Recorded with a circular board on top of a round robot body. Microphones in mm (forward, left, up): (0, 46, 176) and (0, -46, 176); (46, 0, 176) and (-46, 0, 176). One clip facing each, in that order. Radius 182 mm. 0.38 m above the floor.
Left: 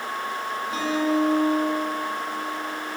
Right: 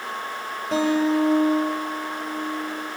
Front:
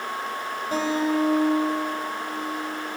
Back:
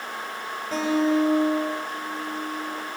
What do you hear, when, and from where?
0.7 s a guitar: 80° right, 8 m